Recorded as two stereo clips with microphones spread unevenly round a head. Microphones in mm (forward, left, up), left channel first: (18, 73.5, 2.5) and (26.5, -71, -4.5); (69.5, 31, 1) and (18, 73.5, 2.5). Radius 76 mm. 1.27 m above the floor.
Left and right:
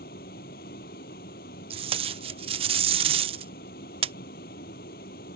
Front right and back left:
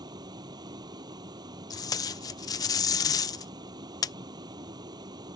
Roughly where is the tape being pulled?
Ahead right.